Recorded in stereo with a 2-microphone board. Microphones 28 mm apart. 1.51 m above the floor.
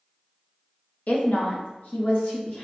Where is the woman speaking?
60° left (ahead or behind), 0.6 m; by 2.7 s 80° left, 1.7 m.